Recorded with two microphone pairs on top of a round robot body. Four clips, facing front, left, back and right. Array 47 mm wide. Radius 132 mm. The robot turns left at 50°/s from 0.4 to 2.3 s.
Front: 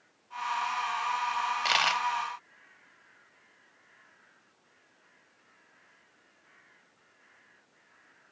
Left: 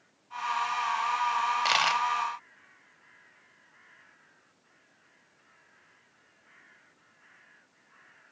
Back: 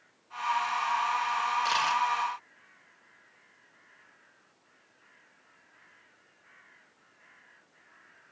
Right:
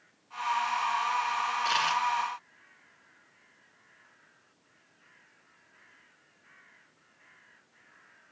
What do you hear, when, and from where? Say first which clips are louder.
1.6 s a dropped coin: left 1 dB, front 3 dB; 45° left, 1.2 m; by 2.0 s 25° left, 1.2 m